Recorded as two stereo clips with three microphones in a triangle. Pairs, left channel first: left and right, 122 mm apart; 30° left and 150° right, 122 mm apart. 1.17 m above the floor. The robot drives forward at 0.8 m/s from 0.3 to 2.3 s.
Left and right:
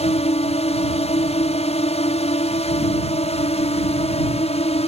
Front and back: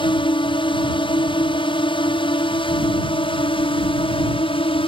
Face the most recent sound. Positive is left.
turn(degrees=65)